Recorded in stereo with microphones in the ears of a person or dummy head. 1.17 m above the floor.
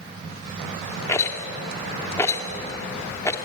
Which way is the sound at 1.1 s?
15° left (ahead or behind).